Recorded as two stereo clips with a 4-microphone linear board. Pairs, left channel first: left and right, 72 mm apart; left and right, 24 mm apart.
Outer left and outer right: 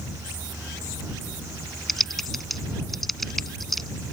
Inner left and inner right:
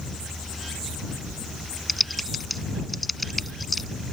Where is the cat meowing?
I don't hear a cat meowing.